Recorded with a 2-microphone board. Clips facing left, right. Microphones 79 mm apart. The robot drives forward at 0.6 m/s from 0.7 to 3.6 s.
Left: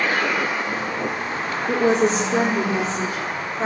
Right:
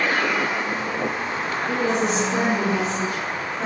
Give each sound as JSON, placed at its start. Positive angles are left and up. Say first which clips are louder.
{"t": 1.7, "sound": "a woman speaking", "louder": "left 5 dB", "side_deg": 40, "distance_m": 2.0}